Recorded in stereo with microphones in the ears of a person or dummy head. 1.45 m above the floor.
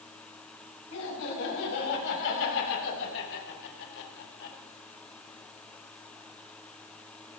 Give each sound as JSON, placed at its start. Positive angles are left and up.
{"t": 0.9, "sound": "laughter", "side_deg": 75, "distance_m": 8.5}